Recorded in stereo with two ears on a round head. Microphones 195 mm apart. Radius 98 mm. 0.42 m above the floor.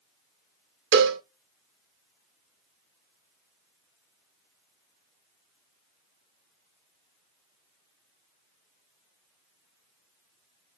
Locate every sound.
0.9 s a cowbell: 55° right (ahead or behind), 0.7 m